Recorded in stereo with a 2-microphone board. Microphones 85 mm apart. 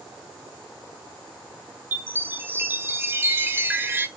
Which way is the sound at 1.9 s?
25° right (ahead or behind).